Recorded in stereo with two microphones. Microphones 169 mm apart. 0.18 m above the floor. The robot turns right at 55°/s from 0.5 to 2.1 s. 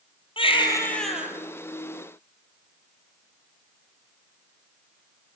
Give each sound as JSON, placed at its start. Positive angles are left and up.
{"t": 0.4, "sound": "a baby crying", "azimuth_deg": 145, "distance_m": 4.0}